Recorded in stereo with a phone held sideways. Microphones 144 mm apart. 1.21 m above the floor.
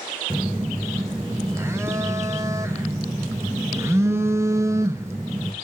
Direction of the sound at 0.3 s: 20° right (ahead or behind).